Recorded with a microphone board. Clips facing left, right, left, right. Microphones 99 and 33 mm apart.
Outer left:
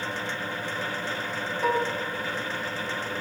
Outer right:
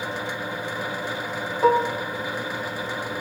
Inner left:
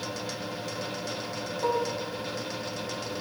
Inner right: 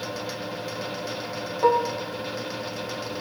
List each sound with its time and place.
1.6 s dishes clattering: 30° right (ahead or behind), 0.6 m